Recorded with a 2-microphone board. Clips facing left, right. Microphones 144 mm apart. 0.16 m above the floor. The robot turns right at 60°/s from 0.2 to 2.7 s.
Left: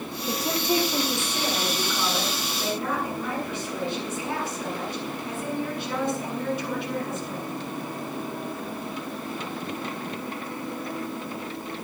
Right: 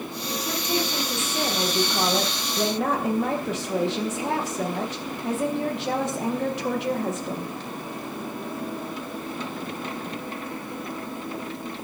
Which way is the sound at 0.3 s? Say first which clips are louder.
Left 3 dB; 125° left.